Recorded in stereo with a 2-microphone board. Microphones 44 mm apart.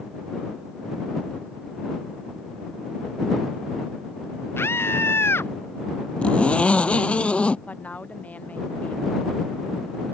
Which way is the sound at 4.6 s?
70° left (ahead or behind).